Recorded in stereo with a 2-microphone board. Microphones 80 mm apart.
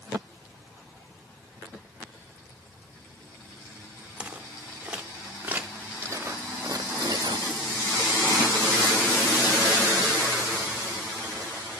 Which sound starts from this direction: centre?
Footsteps, at 4.2 s.